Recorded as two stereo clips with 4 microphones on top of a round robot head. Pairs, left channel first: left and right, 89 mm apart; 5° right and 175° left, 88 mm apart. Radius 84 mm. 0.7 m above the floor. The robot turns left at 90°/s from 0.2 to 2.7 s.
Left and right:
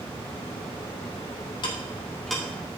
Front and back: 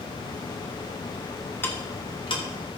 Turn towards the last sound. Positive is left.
turn(degrees=-35)